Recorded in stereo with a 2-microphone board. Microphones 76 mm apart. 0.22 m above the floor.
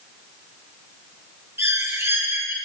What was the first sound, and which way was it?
A bird, 35° right (ahead or behind).